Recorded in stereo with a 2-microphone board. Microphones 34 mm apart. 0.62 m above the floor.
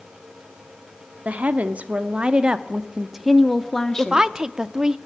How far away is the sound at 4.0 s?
About 0.8 m.